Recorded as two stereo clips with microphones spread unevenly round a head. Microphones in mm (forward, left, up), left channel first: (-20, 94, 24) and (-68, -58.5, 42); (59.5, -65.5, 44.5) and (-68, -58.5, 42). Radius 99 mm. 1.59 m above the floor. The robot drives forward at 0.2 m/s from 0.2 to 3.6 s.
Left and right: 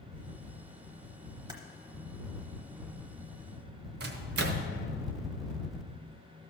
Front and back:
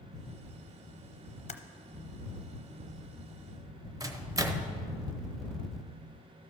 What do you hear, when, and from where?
1.5 s typing on a keyboard: 40° right, 0.7 m
4.0 s a microwave: 120° right, 0.9 m